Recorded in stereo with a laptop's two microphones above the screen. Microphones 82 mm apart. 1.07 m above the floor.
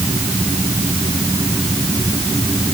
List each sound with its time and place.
Only background noise.